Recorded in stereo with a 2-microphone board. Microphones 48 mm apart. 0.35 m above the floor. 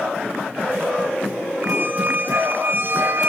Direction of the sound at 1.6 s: 45° right (ahead or behind).